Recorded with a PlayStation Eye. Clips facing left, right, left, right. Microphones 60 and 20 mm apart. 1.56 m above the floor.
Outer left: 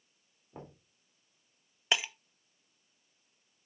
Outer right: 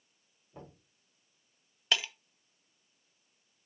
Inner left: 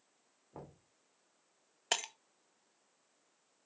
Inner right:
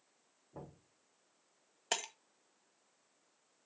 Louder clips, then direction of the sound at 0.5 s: Outer left 2 dB, even; 35° left (ahead or behind).